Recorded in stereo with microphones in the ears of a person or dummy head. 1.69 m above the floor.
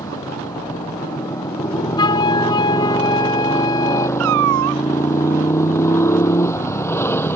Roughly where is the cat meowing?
Right.